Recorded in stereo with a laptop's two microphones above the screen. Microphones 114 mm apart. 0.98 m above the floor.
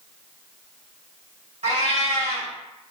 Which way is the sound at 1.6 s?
65° right (ahead or behind).